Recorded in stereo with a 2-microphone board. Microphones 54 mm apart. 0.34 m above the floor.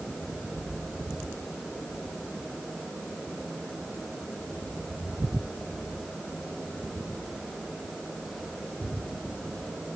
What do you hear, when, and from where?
Only background noise.